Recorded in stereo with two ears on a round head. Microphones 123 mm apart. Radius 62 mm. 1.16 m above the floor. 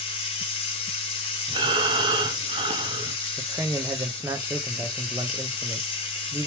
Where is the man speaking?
20° right (ahead or behind), 0.6 m.